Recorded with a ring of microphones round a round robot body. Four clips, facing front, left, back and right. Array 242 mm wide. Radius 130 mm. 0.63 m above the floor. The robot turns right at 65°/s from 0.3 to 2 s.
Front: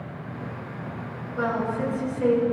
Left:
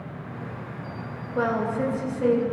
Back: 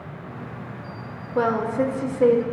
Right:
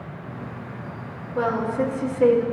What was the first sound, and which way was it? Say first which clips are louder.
A woman speaking: right 2 dB, back 5 dB; straight behind.